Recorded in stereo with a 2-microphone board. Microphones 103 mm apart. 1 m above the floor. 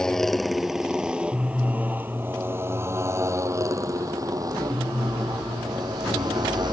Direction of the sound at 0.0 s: 5° left (ahead or behind).